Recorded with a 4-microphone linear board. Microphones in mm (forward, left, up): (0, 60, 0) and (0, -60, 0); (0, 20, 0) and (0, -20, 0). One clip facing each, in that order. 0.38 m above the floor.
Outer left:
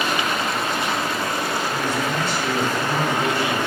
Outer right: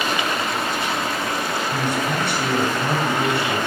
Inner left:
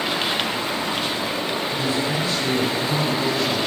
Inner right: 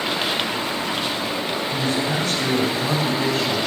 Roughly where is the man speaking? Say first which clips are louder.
Outer right 1 dB, inner right 2 dB; right.